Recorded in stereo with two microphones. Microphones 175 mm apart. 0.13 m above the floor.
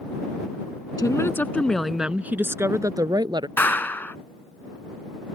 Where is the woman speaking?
20° left (ahead or behind); by 3.5 s 25° right (ahead or behind).